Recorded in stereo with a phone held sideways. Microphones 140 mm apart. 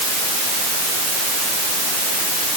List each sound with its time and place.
Only background noise.